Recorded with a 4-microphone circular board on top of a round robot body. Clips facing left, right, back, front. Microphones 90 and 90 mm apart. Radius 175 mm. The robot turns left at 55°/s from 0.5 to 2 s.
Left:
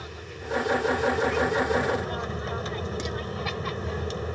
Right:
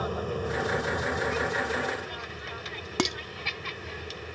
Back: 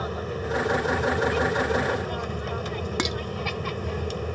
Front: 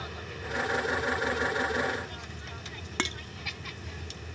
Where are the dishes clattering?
105° right.